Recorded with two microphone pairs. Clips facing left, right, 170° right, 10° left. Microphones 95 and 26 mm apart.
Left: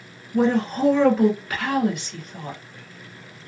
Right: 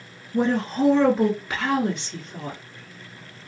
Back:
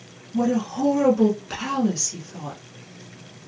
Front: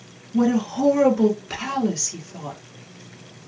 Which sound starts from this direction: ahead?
A woman speaking, at 0.3 s.